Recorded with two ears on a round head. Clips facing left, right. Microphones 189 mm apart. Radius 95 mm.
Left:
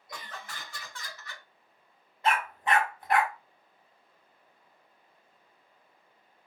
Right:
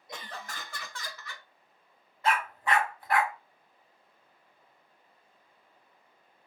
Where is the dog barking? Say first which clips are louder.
Even; 20° left (ahead or behind), 0.9 m.